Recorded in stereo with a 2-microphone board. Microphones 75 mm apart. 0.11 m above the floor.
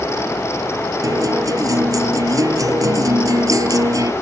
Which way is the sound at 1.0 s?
55° right (ahead or behind).